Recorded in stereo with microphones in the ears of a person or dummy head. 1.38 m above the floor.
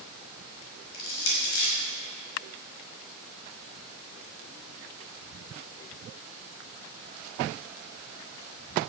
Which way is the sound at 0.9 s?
85° left.